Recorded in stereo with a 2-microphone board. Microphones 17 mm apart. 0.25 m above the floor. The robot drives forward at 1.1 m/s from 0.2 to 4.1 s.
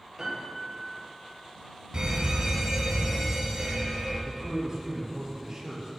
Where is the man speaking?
30° right (ahead or behind), 5 m.